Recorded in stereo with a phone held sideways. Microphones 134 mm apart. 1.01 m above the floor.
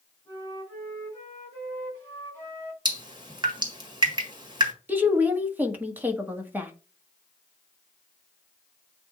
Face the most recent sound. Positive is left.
turn(degrees=-15)  # may be behind; listen again after turning